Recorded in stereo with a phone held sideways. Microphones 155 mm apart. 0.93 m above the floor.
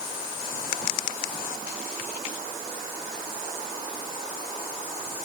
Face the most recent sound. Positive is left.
No sound to turn to.